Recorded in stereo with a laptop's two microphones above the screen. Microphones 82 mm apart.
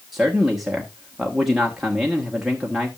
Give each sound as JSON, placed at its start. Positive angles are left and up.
{"t": 0.1, "sound": "a man speaking", "side_deg": -5, "distance_m": 1.3}